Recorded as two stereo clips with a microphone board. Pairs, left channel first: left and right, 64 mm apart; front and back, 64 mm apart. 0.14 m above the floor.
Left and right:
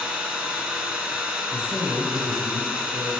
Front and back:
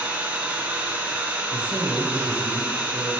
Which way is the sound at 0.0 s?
155° right.